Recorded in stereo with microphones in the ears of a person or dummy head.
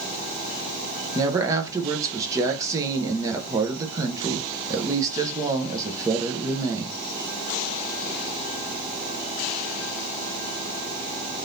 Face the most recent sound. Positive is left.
turn(degrees=-15)  # may be behind; listen again after turning